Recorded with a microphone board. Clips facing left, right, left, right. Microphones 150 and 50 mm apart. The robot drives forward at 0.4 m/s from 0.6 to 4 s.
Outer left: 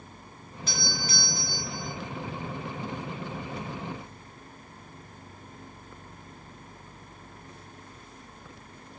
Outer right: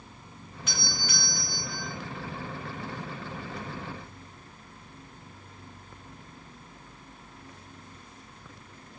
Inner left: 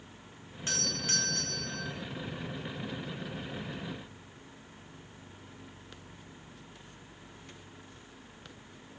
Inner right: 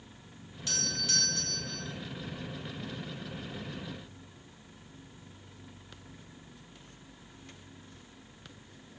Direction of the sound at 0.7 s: 35° left (ahead or behind).